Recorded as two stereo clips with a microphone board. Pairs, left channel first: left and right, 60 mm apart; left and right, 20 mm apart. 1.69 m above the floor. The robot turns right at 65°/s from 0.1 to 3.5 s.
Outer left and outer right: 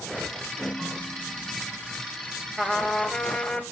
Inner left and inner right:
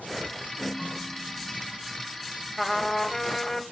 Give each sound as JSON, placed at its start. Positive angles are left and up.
{"t": 0.6, "sound": "a ringtone", "azimuth_deg": 160, "distance_m": 3.5}
{"t": 2.6, "sound": "a trumpet", "side_deg": -5, "distance_m": 1.6}